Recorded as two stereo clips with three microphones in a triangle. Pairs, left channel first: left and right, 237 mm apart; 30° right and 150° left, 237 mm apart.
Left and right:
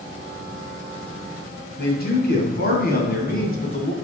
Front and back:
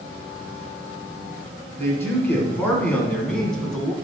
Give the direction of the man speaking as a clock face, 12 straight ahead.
10 o'clock.